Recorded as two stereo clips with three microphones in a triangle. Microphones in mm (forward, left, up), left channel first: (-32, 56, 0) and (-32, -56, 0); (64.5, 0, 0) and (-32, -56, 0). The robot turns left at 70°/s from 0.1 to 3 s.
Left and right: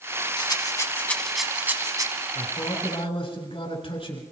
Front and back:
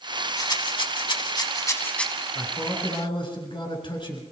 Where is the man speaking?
110° left, 3.5 m; by 4.2 s 65° left, 3.5 m.